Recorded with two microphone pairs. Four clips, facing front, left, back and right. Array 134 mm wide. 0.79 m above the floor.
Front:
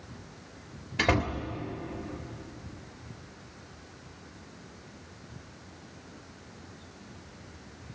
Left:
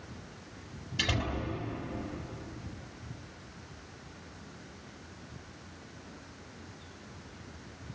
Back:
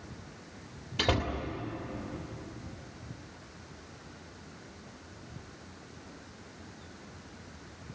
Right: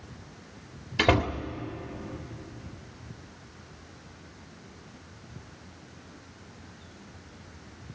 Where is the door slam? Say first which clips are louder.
Right 10 dB, front 3 dB; 90° right, 1.6 m.